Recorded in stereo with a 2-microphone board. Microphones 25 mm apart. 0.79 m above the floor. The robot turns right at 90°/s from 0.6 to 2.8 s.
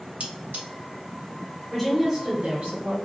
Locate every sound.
0.2 s cutlery clinking: 60° right (ahead or behind), 0.8 m; by 0.7 s 55° right (ahead or behind), 0.8 m
1.7 s a woman speaking: 170° left, 1.8 m; by 3.0 s 90° right, 1.8 m